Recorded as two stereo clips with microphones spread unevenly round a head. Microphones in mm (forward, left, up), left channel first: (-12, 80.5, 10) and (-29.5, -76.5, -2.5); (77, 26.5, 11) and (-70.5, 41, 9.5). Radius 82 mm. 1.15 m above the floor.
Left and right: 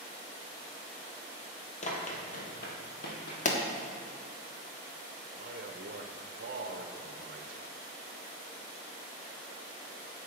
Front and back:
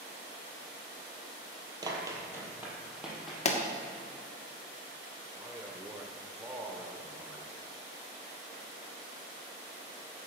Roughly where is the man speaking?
Behind right.